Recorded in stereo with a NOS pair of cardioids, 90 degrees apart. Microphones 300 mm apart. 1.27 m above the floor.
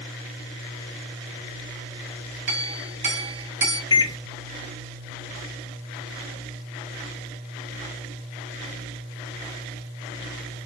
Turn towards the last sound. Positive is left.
turn(degrees=15)